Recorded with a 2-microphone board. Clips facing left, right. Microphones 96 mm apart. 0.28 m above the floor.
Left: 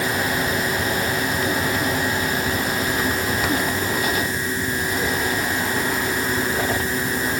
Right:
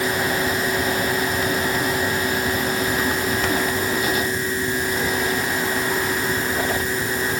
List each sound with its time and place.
Only background noise.